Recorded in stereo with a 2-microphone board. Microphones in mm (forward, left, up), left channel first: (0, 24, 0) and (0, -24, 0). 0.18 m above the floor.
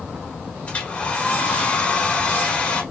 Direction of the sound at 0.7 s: 30° left (ahead or behind).